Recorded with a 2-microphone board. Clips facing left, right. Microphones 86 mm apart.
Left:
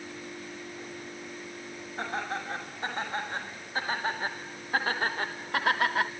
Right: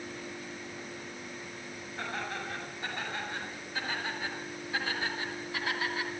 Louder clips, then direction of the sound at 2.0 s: Left 4 dB; 30° left (ahead or behind).